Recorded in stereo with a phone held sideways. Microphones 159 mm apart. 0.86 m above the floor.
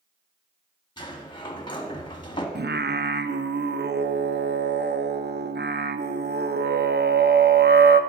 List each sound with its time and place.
1.0 s a sliding door: 25° left (ahead or behind), 1.1 m
2.5 s singing: 80° right, 0.5 m